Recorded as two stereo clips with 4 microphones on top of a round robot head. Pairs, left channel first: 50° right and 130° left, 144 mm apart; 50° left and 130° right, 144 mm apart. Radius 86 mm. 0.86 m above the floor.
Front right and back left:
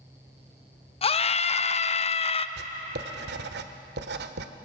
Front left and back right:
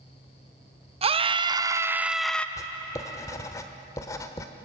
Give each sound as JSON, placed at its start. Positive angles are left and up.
{"t": 1.0, "sound": "a scream", "azimuth_deg": -90, "distance_m": 1.2}
{"t": 2.6, "sound": "writing", "azimuth_deg": 120, "distance_m": 1.1}